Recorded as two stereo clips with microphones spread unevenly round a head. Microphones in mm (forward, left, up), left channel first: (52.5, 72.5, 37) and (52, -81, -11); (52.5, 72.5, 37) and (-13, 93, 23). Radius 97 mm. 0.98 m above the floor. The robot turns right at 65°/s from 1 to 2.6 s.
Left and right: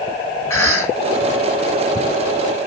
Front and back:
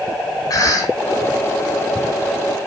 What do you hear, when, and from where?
0.5 s a cough: 15° left, 4 m